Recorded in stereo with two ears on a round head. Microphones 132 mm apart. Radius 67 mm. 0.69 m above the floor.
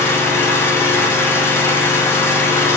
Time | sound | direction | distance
0.0 | an engine running | 15° left (ahead or behind) | 1.0 m